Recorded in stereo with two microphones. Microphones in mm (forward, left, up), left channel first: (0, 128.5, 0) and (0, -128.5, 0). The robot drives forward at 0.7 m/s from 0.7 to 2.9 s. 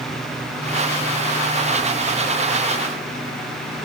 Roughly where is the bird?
I don't hear a bird.